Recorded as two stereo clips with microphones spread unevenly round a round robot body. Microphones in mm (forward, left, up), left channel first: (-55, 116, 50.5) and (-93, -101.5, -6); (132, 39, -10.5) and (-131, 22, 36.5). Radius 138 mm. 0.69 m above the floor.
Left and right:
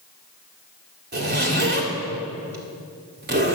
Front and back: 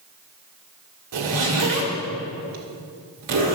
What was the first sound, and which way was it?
A zipper, 135° right.